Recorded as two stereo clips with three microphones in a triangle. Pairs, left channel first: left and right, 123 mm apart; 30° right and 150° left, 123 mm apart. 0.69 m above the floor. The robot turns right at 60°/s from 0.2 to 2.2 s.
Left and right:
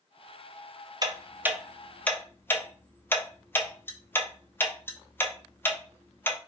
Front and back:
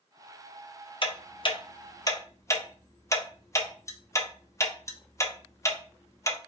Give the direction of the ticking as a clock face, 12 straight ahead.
2 o'clock.